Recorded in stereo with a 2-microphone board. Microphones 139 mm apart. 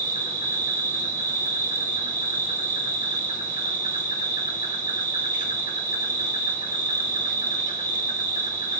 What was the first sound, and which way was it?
An insect, 75° left (ahead or behind).